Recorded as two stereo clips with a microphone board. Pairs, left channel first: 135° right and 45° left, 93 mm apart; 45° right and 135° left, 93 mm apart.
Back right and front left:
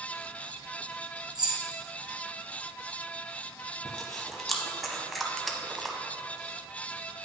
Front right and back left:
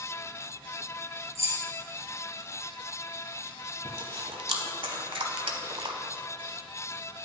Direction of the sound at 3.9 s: 135° left.